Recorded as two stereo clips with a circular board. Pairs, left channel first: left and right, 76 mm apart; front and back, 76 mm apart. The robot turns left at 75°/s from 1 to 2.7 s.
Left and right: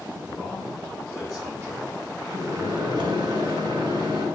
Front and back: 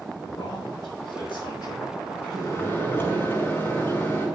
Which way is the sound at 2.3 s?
35° right.